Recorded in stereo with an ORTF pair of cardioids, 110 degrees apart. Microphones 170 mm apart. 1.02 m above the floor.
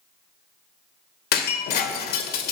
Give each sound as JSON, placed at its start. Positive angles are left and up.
{"t": 1.3, "sound": "breaking glass", "azimuth_deg": 65, "distance_m": 2.0}